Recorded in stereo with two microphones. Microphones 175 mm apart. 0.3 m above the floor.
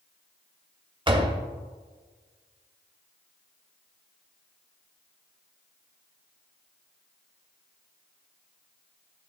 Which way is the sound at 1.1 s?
30° right (ahead or behind).